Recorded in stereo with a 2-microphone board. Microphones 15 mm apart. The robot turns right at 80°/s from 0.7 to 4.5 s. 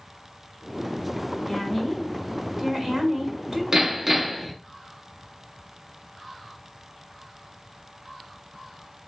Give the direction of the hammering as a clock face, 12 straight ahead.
1 o'clock.